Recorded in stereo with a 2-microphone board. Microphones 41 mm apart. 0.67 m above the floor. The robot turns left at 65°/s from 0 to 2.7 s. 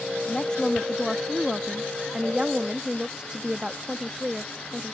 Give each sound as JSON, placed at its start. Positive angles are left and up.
{"t": 0.3, "sound": "a woman speaking", "side_deg": 20}